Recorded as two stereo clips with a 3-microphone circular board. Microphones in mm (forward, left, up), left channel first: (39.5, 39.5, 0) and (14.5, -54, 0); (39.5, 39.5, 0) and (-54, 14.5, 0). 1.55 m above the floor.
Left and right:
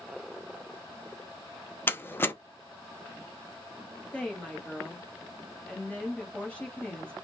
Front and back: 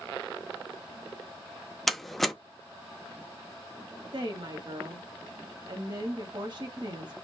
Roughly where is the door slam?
Left.